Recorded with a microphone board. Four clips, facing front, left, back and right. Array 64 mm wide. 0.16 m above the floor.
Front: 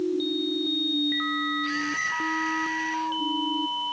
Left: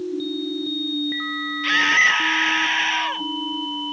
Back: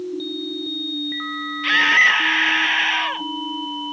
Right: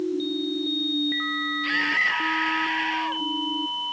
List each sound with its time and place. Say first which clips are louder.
1.6 s a scream: left 7 dB, back 12 dB; 160° left